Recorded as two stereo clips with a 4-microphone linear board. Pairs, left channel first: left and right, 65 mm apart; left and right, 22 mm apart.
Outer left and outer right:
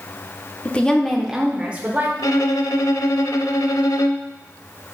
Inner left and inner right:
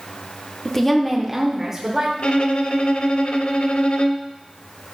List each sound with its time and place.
0.7 s a woman speaking: 25° left (ahead or behind), 0.8 m; by 2.1 s 25° right (ahead or behind), 1.2 m
2.2 s a violin: 60° left (ahead or behind), 0.5 m